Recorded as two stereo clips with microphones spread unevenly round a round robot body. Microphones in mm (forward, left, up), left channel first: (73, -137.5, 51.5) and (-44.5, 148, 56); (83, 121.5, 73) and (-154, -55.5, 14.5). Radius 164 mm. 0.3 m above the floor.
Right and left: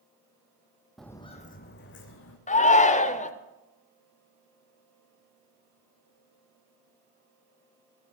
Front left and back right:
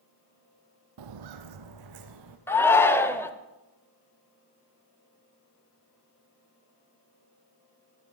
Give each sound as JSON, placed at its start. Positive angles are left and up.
{"t": 1.0, "sound": "footsteps", "azimuth_deg": -160, "distance_m": 0.9}
{"t": 2.5, "sound": "a shout", "azimuth_deg": -60, "distance_m": 0.9}